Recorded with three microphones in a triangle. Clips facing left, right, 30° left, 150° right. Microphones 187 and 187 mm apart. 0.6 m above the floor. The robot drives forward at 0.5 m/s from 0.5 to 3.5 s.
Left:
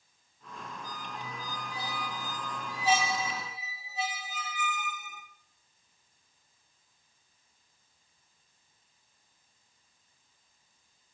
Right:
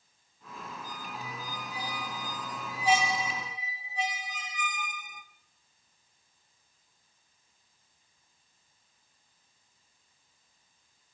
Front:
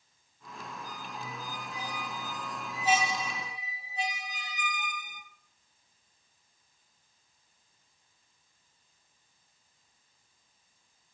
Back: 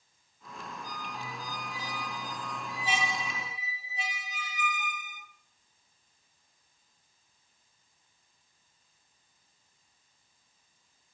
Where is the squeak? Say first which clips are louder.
Even, back 1 dB; 10° right, 3 m; by 5.2 s 15° right, 1.7 m.